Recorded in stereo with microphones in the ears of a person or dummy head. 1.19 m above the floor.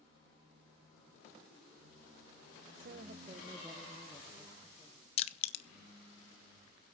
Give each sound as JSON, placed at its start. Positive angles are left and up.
{"t": 2.8, "sound": "a woman speaking", "side_deg": -50, "distance_m": 0.8}
{"t": 5.2, "sound": "crushing", "side_deg": 35, "distance_m": 0.5}